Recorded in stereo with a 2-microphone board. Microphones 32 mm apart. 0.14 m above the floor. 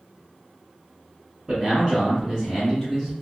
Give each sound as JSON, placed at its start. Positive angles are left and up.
{"t": 1.5, "sound": "a man speaking", "side_deg": -25, "distance_m": 1.8}